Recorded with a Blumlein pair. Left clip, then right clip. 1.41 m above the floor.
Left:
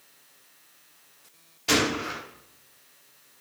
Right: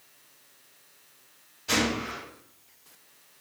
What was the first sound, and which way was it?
A gunshot, 60° left.